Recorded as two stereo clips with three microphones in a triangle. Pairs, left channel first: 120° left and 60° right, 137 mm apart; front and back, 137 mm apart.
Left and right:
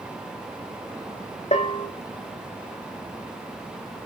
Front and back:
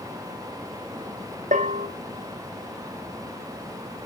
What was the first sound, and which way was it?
A bell, 155° left.